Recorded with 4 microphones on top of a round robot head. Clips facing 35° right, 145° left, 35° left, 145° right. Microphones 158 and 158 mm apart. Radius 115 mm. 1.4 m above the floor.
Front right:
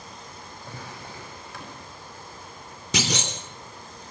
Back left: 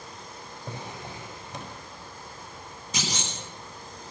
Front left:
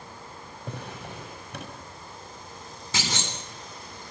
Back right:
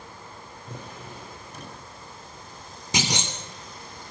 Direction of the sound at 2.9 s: 70° right.